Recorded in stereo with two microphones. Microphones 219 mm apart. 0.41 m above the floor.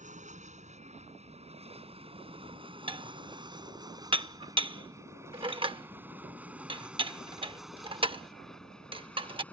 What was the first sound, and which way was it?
An aircraft, 35° right (ahead or behind).